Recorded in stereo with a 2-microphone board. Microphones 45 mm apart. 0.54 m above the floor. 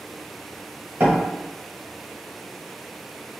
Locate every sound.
1.0 s a door slam: 50° right (ahead or behind), 1.8 m